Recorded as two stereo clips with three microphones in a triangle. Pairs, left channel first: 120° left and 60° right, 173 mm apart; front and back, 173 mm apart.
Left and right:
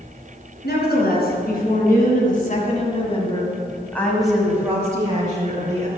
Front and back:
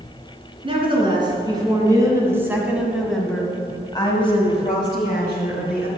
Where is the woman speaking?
125° left, 3.5 m; by 5.9 s 15° right, 2.5 m.